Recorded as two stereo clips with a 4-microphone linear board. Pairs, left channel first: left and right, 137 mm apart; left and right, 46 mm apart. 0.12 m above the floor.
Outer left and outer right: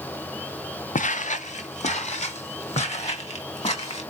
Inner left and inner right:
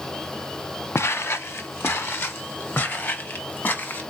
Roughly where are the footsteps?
Left.